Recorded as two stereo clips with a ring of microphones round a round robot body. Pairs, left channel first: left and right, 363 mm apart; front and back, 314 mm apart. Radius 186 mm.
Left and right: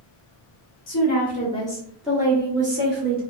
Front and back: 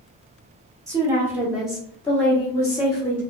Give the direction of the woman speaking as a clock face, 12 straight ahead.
8 o'clock.